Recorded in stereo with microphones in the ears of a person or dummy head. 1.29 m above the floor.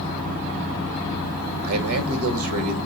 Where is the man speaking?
80° right, 1.1 m.